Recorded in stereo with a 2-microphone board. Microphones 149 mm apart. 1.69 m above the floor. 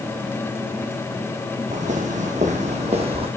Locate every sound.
1.7 s footsteps: 55° right (ahead or behind), 3 m; by 3.3 s 40° right (ahead or behind), 2.5 m